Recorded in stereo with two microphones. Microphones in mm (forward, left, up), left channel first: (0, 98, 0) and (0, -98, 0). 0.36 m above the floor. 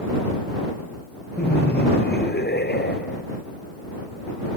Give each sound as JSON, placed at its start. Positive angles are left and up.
{"t": 1.4, "sound": "laughter", "side_deg": 55}